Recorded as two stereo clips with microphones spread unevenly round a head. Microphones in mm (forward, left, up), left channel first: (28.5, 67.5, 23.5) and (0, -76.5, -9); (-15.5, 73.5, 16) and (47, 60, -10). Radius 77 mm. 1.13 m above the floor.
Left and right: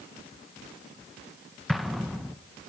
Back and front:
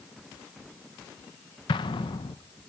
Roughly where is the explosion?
Behind.